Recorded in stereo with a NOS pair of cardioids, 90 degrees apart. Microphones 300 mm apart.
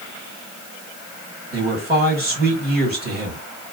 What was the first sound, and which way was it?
A man speaking, 35° right.